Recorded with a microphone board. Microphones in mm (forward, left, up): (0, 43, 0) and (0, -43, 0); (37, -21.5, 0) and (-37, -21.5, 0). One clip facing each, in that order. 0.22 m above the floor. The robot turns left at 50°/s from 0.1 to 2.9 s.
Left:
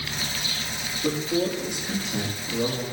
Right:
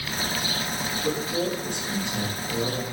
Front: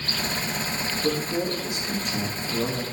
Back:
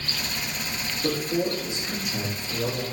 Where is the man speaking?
150° left, 5.5 m; by 2.8 s 60° left, 5.5 m.